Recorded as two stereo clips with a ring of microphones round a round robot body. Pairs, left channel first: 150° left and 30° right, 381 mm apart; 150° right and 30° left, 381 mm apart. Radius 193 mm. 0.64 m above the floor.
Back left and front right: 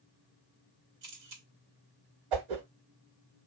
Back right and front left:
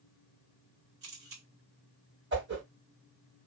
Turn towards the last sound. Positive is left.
turn(degrees=-35)